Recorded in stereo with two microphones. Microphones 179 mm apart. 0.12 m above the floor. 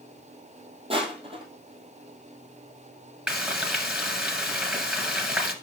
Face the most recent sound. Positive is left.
turn(degrees=-5)  # may be behind; listen again after turning